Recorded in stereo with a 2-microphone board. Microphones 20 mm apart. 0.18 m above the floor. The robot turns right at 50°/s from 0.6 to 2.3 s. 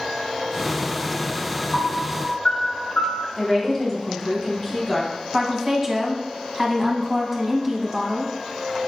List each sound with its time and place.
1.7 s a piano: 85° left, 2 m; by 3.3 s 60° left (ahead or behind), 2 m
3.4 s a woman speaking: 20° left (ahead or behind), 1.2 m
5.3 s a woman speaking: 10° right (ahead or behind), 1.0 m